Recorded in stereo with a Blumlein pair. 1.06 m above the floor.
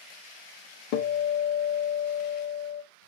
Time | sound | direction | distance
0.9 | a guitar | 40° left | 0.7 m